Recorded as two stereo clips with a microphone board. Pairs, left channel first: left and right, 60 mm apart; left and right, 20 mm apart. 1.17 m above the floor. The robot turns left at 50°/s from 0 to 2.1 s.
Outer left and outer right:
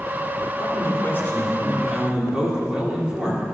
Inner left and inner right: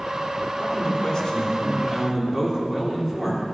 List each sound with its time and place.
0.6 s a man speaking: 65° left, 2.5 m; by 3.4 s 15° right, 2.5 m